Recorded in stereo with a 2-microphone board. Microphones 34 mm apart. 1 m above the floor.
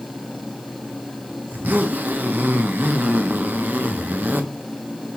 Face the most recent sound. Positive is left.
turn(degrees=-60)  # may be behind; listen again after turning